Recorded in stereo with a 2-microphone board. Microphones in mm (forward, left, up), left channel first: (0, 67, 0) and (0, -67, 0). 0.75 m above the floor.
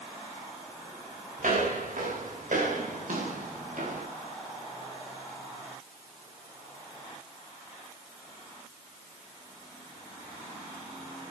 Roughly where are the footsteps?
Right.